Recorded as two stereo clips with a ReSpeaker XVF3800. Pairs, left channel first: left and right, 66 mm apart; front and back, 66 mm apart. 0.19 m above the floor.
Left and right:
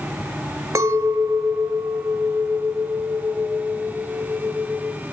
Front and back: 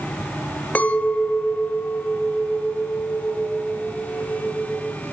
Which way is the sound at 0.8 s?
65° right.